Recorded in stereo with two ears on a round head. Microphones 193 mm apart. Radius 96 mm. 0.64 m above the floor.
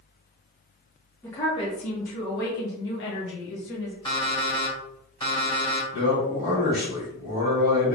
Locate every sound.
1.2 s a woman speaking: 10° left (ahead or behind), 0.7 m; by 4.0 s 60° left (ahead or behind), 1.6 m
4.0 s an alarm clock: 25° left (ahead or behind), 1.5 m
5.9 s a man speaking: 55° left (ahead or behind), 1.9 m